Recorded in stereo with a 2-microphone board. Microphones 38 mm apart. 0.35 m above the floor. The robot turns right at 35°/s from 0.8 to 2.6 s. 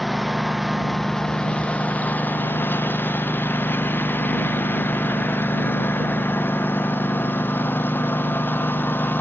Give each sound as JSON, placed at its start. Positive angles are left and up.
{"t": 0.0, "sound": "a lawn mower", "azimuth_deg": 0}